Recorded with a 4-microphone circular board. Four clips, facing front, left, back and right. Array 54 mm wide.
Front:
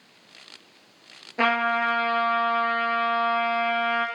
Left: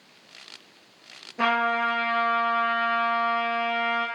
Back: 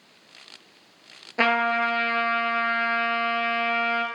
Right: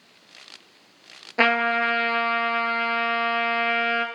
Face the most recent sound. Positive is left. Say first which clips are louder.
# right 3 dB, back 1 dB
turn(degrees=-105)